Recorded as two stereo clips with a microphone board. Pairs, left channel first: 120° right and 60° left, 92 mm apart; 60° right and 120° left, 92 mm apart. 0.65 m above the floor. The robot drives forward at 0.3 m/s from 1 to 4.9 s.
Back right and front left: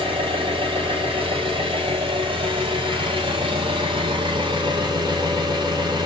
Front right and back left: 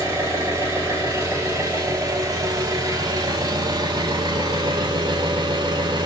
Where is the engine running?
60° left, 2.5 m; by 6.1 s 95° left, 2 m.